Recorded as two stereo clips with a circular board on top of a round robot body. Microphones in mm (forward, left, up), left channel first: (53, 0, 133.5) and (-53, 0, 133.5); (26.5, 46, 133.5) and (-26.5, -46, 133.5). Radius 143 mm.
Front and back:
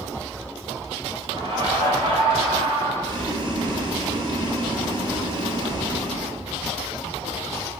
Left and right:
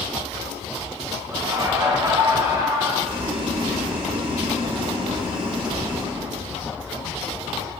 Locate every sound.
1.3 s laughter: 160° right, 2 m
3.0 s boiling: 145° right, 1.4 m